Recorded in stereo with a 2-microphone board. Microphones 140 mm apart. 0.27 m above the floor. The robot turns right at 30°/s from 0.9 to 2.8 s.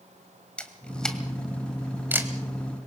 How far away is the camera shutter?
About 1.8 m.